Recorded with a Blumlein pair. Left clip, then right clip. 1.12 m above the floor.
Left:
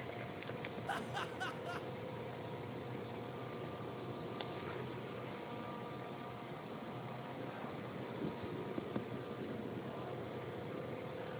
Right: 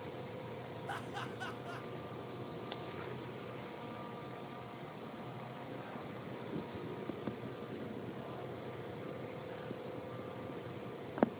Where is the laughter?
5° left, 1.5 m.